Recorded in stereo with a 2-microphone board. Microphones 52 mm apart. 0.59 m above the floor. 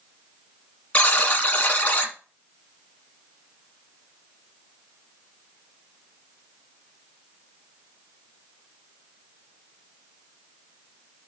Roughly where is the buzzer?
Left.